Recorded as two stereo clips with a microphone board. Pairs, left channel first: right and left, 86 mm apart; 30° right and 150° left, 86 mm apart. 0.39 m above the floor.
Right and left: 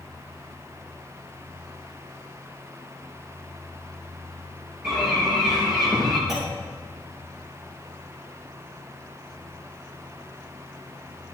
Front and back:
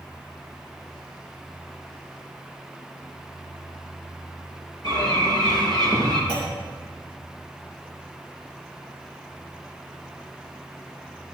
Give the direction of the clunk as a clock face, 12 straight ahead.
12 o'clock.